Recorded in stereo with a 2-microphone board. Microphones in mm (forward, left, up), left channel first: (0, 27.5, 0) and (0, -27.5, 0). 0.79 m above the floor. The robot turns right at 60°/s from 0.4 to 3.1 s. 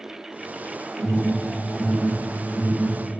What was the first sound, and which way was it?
An alarm, 45° right (ahead or behind).